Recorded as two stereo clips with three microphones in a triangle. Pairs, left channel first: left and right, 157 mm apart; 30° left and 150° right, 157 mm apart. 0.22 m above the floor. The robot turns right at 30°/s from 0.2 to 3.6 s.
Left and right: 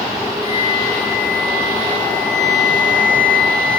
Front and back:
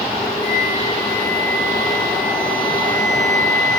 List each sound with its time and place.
0.4 s a flute: 165° left, 2.5 m; by 3.8 s 100° right, 2.5 m